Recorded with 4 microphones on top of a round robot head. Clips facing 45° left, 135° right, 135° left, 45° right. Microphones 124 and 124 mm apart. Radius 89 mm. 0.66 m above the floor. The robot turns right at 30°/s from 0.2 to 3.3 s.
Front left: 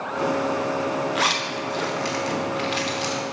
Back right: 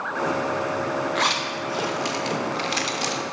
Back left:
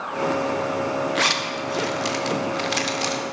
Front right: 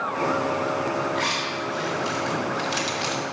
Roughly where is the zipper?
Behind left.